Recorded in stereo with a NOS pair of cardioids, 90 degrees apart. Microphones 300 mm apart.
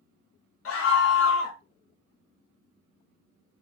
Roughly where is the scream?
Ahead left.